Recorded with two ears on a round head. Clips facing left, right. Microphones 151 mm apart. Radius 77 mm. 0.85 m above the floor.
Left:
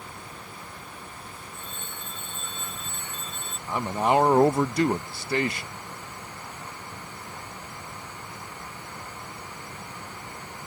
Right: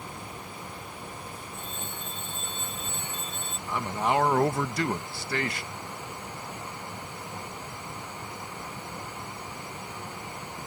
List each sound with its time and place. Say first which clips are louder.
1.5 s a phone ringing: right 2 dB; 30° right (ahead or behind)
3.7 s a man speaking: left 4 dB; 20° left (ahead or behind)